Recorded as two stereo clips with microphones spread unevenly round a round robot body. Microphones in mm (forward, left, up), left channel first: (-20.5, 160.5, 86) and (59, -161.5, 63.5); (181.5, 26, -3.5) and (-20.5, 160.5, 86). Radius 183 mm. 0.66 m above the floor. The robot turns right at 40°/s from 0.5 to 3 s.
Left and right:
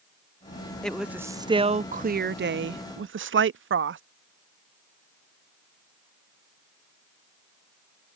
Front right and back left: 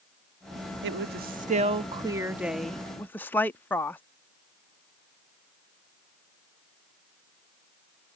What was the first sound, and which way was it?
A woman speaking, 165° right.